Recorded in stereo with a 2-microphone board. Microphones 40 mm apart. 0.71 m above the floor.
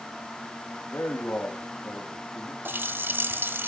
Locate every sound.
0.9 s a man speaking: 75° left (ahead or behind), 3.5 m
2.6 s a running tap: 60° right (ahead or behind), 1.5 m